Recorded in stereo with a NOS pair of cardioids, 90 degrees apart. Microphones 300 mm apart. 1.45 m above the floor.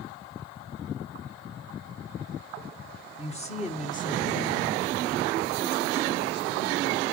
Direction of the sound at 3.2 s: 20° left.